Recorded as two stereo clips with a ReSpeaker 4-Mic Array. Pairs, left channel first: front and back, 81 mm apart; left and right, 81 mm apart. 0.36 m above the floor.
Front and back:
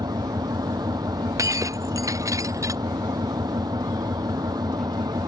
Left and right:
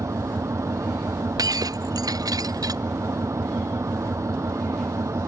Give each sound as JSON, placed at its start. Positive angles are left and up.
{"t": 0.0, "sound": "an engine running", "azimuth_deg": -140}
{"t": 1.4, "sound": "breaking glass", "azimuth_deg": -130}